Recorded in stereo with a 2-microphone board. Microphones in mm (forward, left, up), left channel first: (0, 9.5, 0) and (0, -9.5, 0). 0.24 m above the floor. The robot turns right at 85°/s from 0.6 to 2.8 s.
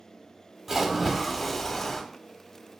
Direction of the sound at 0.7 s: 15° right (ahead or behind).